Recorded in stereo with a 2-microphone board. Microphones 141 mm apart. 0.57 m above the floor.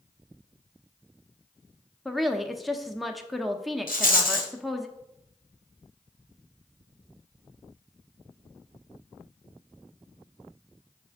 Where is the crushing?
No crushing in this recording.